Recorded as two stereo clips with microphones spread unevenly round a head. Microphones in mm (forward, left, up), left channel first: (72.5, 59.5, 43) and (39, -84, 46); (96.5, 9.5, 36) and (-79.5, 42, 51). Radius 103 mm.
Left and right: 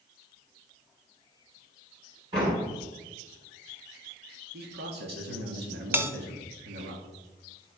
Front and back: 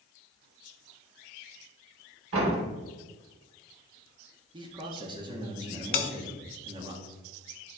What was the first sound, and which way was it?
A door slam, 170° right.